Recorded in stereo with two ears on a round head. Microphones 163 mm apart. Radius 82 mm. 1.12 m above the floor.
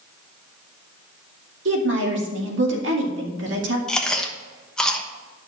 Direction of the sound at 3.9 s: 5° left (ahead or behind).